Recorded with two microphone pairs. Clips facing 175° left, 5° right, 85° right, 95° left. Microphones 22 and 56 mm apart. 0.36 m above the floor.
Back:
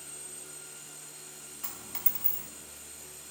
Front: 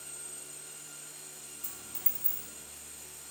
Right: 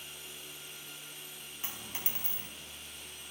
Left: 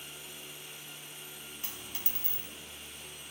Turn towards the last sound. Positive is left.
turn(degrees=-150)